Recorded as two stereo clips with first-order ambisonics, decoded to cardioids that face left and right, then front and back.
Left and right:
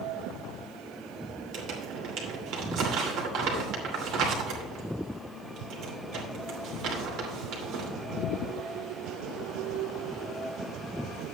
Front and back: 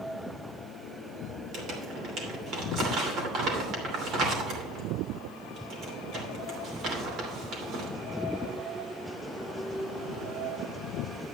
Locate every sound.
1.5 s crumpling: 130° right, 2.5 m